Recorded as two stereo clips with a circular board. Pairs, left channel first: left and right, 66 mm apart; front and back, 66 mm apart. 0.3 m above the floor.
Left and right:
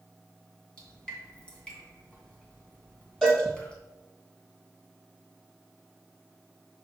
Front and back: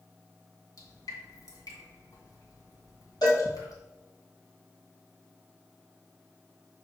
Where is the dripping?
15° left, 2 m.